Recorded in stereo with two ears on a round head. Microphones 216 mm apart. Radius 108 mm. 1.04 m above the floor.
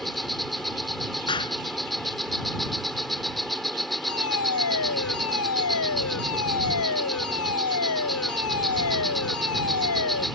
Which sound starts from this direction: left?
A fire alarm, at 4.1 s.